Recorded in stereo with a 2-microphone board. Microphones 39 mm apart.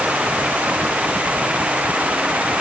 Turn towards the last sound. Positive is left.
No sound to turn to.